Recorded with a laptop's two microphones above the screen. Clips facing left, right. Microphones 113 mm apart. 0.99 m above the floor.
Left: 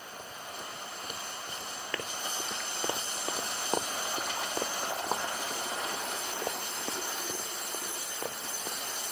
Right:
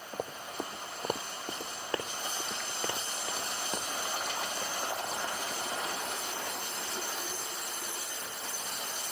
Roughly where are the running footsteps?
Right.